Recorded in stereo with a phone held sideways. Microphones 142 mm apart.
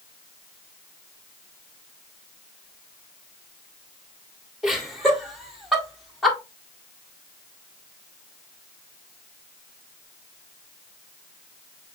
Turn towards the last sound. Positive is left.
turn(degrees=0)  # may be behind; listen again after turning